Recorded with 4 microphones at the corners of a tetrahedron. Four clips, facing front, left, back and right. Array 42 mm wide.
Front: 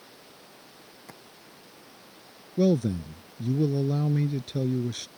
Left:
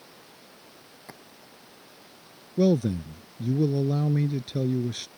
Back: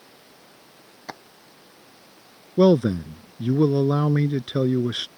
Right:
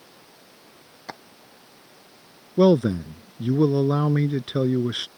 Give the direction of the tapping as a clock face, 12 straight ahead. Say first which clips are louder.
Right 9 dB, back 12 dB; 5 o'clock.